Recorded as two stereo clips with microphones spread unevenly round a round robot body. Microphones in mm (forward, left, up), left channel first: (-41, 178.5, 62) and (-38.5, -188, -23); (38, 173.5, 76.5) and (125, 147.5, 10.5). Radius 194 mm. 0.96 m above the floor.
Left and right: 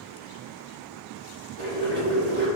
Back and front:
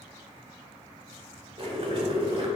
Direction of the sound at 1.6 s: 40° left.